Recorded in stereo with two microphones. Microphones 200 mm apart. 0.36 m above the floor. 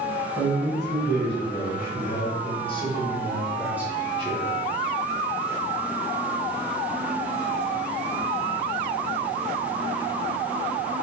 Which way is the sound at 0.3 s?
60° left (ahead or behind).